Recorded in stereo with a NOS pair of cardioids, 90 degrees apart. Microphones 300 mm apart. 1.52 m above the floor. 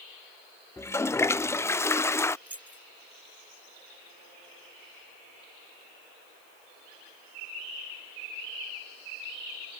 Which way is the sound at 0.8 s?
10° left.